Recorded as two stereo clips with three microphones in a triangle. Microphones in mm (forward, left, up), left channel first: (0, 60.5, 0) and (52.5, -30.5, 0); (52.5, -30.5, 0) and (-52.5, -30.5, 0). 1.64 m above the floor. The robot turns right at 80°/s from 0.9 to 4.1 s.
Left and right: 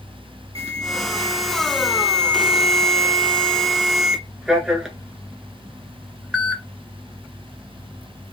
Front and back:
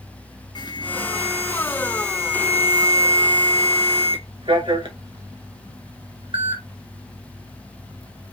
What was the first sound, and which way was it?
An alarm, 45° right.